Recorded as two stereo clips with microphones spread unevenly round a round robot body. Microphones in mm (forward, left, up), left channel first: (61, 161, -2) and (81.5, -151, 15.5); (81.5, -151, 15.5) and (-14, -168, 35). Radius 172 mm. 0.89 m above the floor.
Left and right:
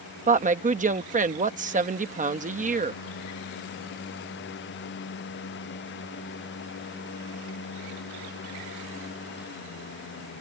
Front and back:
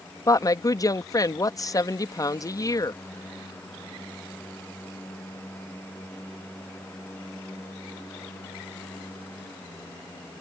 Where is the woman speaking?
25° right.